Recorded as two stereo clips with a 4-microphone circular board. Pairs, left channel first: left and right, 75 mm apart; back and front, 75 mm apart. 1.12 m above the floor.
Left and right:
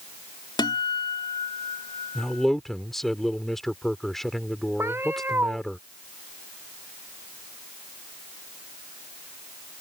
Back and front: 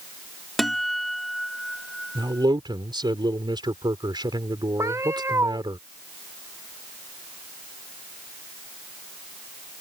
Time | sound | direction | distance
0.6 | a guitar | 90° left | ?
2.1 | a man speaking | 5° left | ?
4.8 | a cat meowing | 40° right | ?